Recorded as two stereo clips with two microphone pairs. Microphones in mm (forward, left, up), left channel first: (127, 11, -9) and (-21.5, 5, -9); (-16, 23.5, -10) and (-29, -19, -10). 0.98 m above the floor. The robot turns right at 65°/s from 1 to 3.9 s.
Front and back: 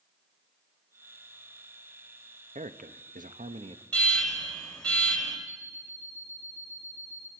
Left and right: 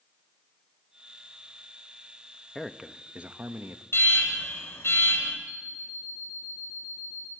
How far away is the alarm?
About 7 m.